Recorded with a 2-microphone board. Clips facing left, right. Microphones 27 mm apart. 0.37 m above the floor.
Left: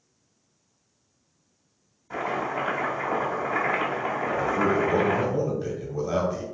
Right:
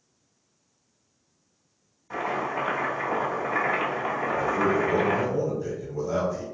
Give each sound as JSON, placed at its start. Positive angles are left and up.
{"t": 2.1, "sound": "chopping", "side_deg": -20, "distance_m": 1.0}
{"t": 4.2, "sound": "a man speaking", "side_deg": 30, "distance_m": 1.0}